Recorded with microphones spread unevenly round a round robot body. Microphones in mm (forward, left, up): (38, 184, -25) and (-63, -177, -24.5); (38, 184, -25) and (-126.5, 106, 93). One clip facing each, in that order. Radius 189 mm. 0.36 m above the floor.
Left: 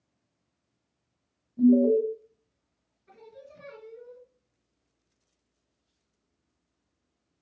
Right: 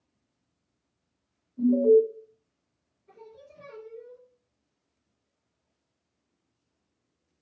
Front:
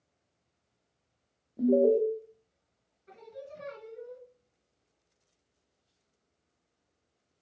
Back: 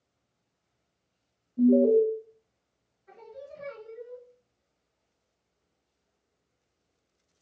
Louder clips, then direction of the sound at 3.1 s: Even, back 1 dB; 65° left.